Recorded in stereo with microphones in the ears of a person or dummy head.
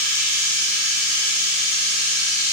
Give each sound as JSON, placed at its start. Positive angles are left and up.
{"t": 0.0, "sound": "running water", "side_deg": 40, "distance_m": 1.6}